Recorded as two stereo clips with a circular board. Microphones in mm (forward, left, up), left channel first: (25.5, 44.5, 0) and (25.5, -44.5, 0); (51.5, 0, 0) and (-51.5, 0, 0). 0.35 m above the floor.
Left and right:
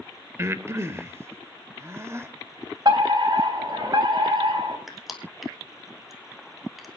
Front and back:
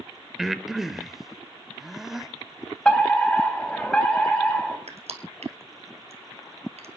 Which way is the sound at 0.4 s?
95° right.